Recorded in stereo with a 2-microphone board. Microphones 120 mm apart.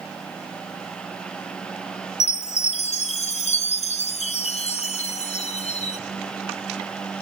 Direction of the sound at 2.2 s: 70° left (ahead or behind).